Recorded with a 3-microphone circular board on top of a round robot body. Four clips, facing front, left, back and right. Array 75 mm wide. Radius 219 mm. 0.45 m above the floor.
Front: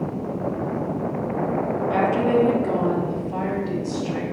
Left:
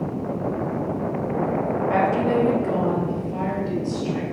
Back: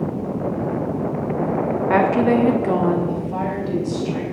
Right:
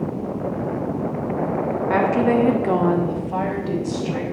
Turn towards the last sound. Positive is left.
turn(degrees=-80)